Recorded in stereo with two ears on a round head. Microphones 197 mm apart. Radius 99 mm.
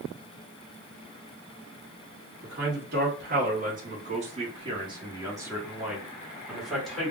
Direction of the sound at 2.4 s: 50° right (ahead or behind).